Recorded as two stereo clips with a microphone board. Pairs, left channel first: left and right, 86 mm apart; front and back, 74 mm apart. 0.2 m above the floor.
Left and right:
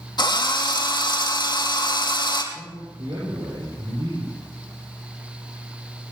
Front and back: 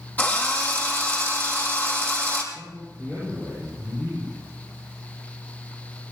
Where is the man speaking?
70° right, 7.5 m.